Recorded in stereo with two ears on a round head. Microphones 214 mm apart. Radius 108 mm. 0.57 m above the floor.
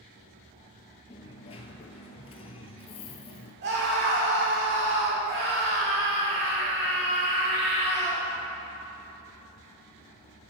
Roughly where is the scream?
Right.